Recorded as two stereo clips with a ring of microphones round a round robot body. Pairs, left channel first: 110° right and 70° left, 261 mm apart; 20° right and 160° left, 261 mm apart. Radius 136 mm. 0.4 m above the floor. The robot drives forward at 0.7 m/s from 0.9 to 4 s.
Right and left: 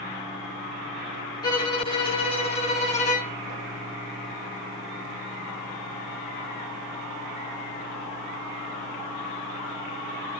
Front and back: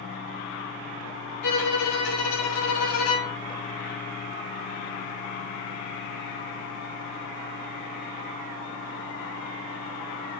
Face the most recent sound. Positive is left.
turn(degrees=-60)